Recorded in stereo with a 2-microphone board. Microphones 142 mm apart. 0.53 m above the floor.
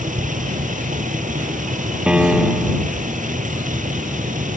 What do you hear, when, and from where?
0.0 s a vehicle: 65° right (ahead or behind)
2.1 s a piano: 5° right (ahead or behind)